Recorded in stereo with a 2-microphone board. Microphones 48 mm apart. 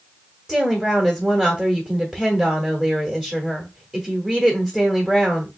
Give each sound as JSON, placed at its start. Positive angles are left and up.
{"t": 0.5, "sound": "a woman speaking", "side_deg": -15, "distance_m": 1.2}